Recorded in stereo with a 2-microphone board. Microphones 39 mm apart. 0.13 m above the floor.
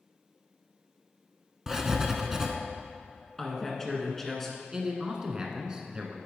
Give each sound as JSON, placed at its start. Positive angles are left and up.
{"t": 1.7, "sound": "writing", "side_deg": -15, "distance_m": 0.8}
{"t": 3.4, "sound": "a woman speaking", "side_deg": 10, "distance_m": 1.5}
{"t": 4.7, "sound": "a man speaking", "side_deg": -20, "distance_m": 1.1}